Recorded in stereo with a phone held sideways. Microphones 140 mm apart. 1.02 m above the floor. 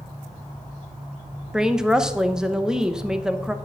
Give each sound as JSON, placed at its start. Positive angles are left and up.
{"t": 1.5, "sound": "a woman speaking", "side_deg": -5, "distance_m": 0.8}